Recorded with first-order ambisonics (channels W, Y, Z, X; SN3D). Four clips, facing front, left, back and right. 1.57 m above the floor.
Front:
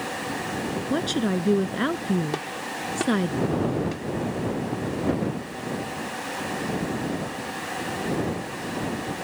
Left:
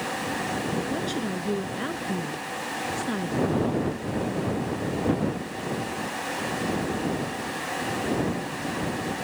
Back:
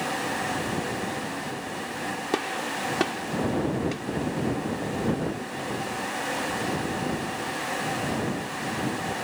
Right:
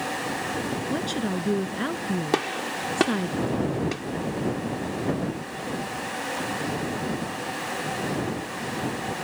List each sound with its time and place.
0.9 s a woman speaking: 10° right
2.3 s a gunshot: 105° right